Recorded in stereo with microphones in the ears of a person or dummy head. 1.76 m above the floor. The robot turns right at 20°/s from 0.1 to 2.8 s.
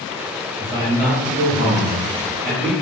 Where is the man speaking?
160° right, 1.0 m; by 2.7 s 120° right, 1.0 m.